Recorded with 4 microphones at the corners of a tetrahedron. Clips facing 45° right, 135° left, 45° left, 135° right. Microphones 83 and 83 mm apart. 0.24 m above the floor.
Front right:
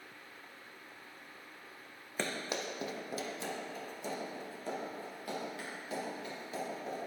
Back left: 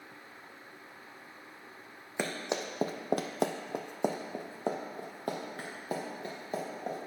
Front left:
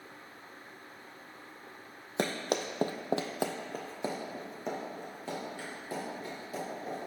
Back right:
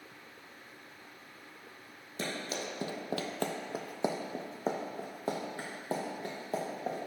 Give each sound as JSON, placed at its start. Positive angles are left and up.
{"t": 2.2, "sound": "running footsteps", "azimuth_deg": 55, "distance_m": 0.7}